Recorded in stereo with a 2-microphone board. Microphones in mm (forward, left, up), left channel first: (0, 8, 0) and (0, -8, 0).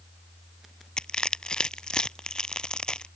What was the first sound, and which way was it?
Crushing, 60° left (ahead or behind).